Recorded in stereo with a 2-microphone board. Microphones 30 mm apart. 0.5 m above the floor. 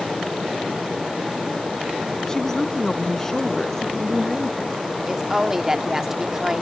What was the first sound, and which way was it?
A woman speaking, 15° left (ahead or behind).